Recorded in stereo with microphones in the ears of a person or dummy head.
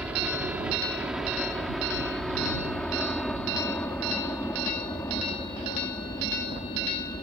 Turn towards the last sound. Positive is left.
turn(degrees=20)  # may be behind; listen again after turning